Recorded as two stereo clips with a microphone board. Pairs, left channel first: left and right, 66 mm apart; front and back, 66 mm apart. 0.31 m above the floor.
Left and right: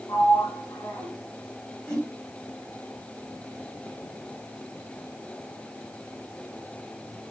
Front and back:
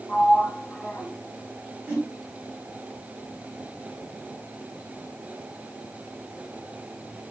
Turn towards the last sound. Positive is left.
turn(degrees=145)